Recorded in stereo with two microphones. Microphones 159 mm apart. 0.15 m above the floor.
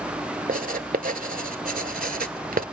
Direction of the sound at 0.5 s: 70° right (ahead or behind).